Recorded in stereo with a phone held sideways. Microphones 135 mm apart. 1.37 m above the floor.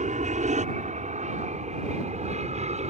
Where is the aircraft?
65° right (ahead or behind); by 2.9 s 55° right (ahead or behind).